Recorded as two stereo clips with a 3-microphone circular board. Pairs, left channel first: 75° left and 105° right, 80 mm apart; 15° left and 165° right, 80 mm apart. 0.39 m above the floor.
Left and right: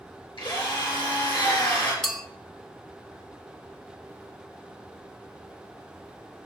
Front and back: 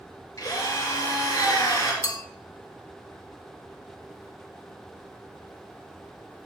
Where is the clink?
10° right, 1.1 m.